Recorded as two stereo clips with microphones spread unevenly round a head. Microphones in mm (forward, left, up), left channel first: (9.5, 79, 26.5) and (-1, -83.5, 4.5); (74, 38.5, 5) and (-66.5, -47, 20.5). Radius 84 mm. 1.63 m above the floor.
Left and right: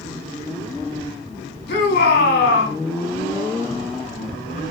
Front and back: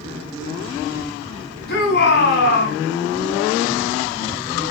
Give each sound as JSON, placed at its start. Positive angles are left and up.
{"t": 1.7, "sound": "a shout", "azimuth_deg": 55, "distance_m": 5.0}